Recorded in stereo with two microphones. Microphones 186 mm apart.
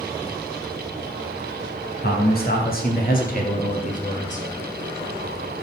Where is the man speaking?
55° left (ahead or behind), 3 m; by 4.5 s 40° left (ahead or behind), 3.5 m.